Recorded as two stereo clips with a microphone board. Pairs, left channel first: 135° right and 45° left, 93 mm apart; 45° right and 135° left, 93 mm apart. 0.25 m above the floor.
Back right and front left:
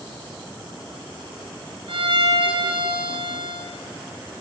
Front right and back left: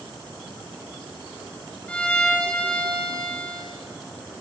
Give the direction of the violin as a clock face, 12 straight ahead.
11 o'clock.